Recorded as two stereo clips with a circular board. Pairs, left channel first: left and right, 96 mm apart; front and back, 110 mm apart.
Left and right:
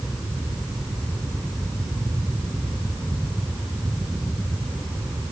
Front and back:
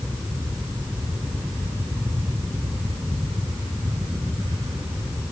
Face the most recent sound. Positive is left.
No sound to turn to.